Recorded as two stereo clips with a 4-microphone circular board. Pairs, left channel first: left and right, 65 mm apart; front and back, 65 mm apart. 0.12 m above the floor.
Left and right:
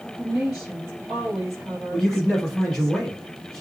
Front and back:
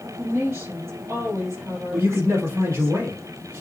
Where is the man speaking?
175° left, 2.5 m.